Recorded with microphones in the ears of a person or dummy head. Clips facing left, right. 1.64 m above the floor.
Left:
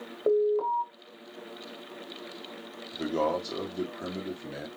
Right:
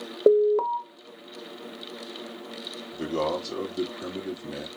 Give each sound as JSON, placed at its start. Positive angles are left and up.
{"t": 0.3, "sound": "an alarm", "side_deg": -65, "distance_m": 1.1}
{"t": 2.9, "sound": "a man speaking", "side_deg": -5, "distance_m": 1.5}